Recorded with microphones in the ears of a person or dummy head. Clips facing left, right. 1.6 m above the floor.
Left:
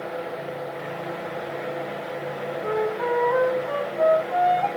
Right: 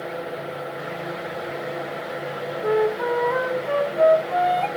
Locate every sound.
0.0 s a fan: 5° right (ahead or behind), 0.7 m
2.6 s a flute: 30° right (ahead or behind), 1.2 m